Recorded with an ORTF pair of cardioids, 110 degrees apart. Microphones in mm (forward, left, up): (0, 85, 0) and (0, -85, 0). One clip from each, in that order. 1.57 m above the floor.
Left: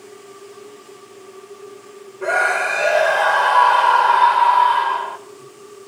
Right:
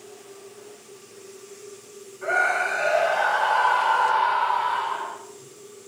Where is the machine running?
45° left, 1.6 m.